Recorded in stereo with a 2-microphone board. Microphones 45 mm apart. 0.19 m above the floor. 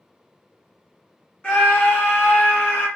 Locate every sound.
1.4 s a scream: 20° left (ahead or behind), 1.7 m; by 2.9 s 10° left (ahead or behind), 3 m